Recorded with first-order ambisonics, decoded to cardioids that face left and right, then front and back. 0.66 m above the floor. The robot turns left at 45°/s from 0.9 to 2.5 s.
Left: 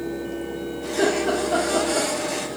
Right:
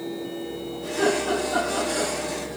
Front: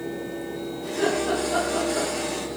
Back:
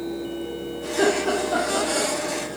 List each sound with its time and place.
0.8 s laughter: 150° left, 0.9 m; by 2.1 s 95° left, 0.9 m